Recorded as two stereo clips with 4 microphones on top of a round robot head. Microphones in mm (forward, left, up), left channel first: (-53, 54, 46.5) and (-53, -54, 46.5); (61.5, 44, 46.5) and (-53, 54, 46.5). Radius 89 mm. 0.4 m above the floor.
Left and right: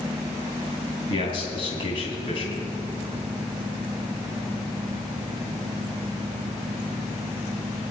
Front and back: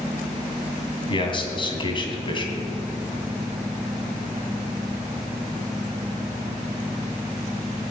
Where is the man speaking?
40° left, 3 m.